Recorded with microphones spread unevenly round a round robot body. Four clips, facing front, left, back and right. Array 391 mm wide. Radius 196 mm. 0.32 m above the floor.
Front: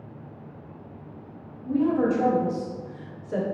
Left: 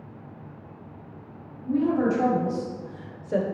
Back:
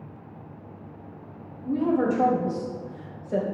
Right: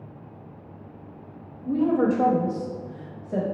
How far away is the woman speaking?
About 1.4 m.